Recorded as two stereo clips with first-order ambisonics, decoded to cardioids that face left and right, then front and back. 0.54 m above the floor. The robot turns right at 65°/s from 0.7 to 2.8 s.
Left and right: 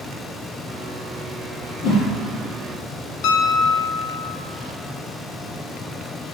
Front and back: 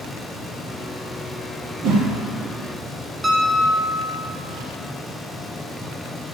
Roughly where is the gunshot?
I don't hear a gunshot.